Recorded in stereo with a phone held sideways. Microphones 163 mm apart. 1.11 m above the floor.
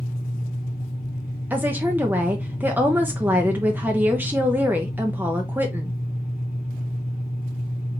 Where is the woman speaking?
10° right (ahead or behind), 0.7 m.